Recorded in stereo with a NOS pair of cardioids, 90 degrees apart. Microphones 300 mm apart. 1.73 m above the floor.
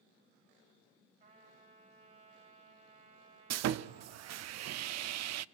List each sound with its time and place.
1.2 s a trumpet: 35° right, 10 m
3.5 s sawing: 60° right, 0.6 m